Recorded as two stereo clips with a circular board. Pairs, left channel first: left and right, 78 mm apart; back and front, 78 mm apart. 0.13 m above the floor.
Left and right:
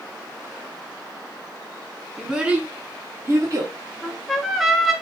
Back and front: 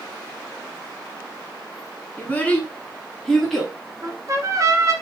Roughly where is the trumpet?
Ahead.